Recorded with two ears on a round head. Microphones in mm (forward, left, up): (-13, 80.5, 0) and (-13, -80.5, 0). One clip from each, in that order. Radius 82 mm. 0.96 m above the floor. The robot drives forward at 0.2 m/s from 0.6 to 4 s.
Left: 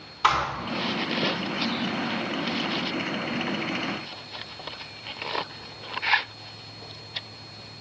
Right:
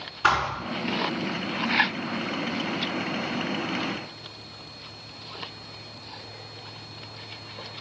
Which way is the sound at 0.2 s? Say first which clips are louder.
Even; 85° left.